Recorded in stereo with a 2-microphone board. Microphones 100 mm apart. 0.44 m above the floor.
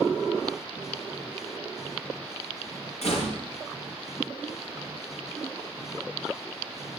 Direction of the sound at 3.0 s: 85° left.